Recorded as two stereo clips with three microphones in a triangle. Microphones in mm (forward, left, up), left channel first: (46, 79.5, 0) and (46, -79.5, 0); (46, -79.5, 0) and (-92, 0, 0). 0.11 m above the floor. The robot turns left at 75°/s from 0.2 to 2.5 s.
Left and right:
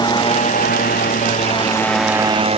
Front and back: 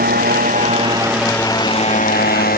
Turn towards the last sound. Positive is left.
turn(degrees=-40)